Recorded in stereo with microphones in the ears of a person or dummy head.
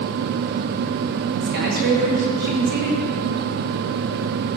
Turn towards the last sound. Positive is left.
turn(degrees=-55)  # may be behind; listen again after turning